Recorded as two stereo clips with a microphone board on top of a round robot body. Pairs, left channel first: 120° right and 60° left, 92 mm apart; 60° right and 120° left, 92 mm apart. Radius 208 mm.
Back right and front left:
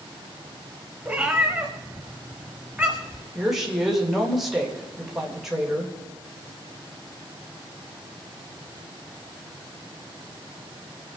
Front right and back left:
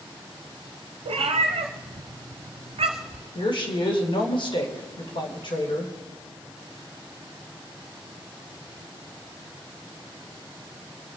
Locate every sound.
1.1 s a cat meowing: 145° left, 0.7 m
3.4 s a woman speaking: 25° right, 3 m